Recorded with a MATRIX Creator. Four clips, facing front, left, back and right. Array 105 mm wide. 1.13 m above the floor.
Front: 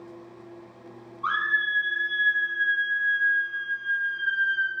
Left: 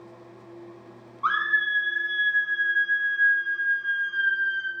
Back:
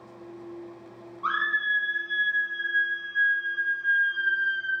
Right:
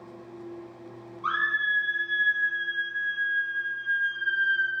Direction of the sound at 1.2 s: 100° left.